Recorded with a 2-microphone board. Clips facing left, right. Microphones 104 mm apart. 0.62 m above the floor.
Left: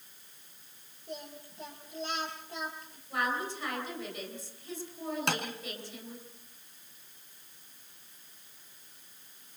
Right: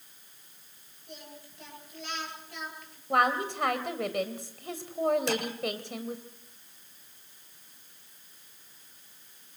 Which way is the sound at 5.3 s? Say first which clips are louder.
Right 3 dB; 60° left (ahead or behind).